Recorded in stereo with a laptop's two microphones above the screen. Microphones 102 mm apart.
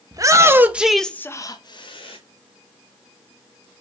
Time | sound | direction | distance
0.1 | a shout | 35° right (ahead or behind) | 0.8 m